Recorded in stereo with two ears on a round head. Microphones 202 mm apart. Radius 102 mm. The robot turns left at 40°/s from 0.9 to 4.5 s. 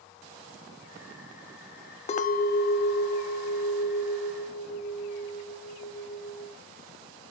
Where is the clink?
150° left, 0.6 m; by 6.5 s 55° left, 0.6 m.